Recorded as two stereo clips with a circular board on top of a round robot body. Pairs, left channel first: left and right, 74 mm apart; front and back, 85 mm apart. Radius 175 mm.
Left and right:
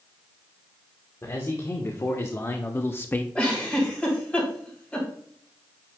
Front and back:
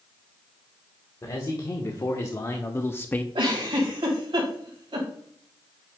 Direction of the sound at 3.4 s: 160° left.